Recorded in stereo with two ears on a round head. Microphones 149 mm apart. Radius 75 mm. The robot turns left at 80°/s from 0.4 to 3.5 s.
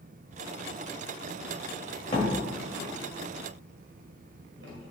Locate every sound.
2.1 s a door slam: 30° left (ahead or behind), 2.0 m; by 4.9 s 80° right, 2.0 m